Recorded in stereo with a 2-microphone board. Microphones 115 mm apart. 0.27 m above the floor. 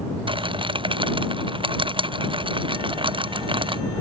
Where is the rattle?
45° right (ahead or behind).